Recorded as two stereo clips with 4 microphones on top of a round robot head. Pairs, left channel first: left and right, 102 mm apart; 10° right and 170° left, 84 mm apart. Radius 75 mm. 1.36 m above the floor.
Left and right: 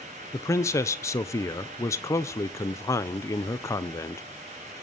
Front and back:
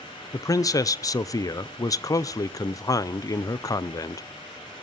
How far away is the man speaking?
About 0.8 m.